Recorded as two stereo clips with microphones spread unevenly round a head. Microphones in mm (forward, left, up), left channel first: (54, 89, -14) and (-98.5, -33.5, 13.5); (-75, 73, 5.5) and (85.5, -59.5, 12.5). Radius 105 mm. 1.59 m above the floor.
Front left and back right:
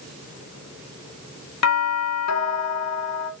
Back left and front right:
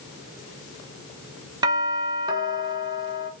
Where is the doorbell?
35° left, 2 m.